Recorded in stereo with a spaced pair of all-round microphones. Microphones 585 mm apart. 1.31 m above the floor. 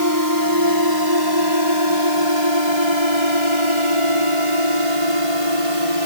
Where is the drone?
35° right (ahead or behind); by 6.1 s 70° right (ahead or behind).